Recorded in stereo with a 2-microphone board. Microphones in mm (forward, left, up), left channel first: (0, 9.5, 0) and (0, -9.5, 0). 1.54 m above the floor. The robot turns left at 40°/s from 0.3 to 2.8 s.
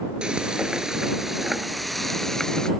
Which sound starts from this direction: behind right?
Frying, at 0.2 s.